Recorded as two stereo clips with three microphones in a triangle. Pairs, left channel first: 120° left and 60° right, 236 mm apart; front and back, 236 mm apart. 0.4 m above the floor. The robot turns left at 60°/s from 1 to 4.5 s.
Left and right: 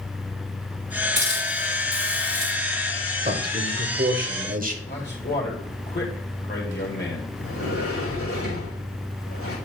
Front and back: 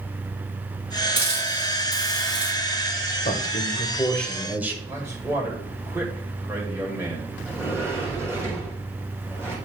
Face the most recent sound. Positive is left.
turn(degrees=100)